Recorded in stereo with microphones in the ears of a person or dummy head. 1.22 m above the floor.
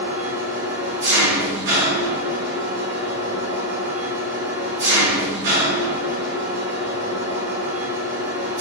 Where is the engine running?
55° right (ahead or behind), 0.8 m.